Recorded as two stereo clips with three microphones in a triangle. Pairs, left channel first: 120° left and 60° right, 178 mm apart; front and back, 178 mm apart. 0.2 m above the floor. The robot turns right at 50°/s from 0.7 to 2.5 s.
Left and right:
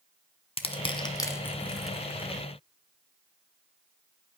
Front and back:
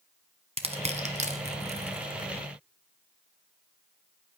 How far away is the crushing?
About 1.3 m.